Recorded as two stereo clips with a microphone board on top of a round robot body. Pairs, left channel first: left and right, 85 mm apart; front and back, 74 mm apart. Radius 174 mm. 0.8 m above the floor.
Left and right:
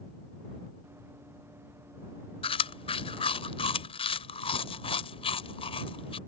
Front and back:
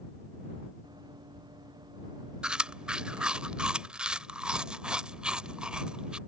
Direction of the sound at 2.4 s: 100° left.